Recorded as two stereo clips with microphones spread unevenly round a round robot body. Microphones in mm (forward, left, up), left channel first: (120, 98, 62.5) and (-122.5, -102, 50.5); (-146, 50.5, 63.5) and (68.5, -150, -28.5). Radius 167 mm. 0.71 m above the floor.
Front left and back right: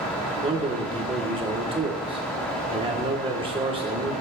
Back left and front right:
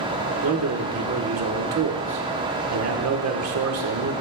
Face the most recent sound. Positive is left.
turn(degrees=-70)